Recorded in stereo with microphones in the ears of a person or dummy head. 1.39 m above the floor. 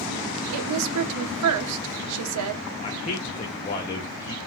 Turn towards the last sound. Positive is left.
turn(degrees=35)  # may be behind; listen again after turning